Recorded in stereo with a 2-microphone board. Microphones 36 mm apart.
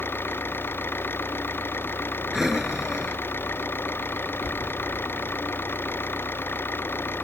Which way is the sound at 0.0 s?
80° left.